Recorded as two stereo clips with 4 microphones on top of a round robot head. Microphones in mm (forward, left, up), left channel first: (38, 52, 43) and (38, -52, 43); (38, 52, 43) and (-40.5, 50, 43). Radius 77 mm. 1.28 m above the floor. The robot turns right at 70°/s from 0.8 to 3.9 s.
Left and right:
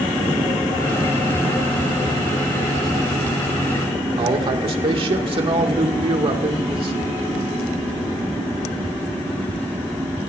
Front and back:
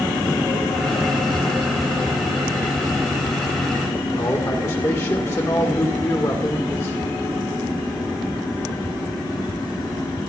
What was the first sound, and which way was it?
A man speaking, 60° right.